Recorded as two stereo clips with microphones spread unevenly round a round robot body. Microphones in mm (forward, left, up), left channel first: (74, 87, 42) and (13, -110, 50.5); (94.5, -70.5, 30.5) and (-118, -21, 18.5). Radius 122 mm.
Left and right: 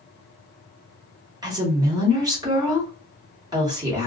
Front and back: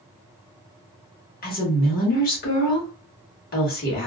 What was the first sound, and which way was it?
A woman speaking, 40° right.